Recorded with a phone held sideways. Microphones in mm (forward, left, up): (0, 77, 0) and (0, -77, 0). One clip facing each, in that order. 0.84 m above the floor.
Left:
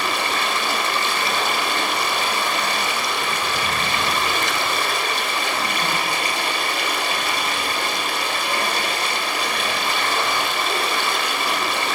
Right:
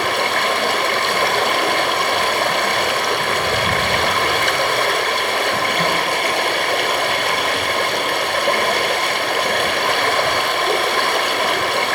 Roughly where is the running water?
Right.